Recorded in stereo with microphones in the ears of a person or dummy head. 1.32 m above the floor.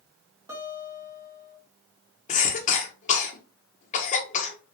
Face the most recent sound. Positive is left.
turn(degrees=35)  # may be behind; listen again after turning